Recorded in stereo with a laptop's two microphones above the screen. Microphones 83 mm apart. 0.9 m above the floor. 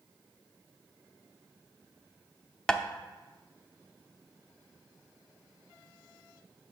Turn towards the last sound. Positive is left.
turn(degrees=10)  # may be behind; listen again after turning